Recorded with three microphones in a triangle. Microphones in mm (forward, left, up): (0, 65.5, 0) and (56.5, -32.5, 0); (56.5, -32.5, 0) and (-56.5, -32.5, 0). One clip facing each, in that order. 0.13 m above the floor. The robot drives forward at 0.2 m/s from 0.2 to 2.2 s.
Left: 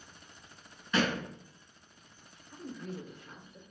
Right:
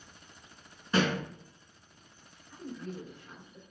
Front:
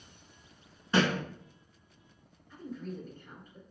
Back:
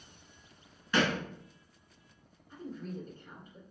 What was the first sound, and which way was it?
A thud, 35° right.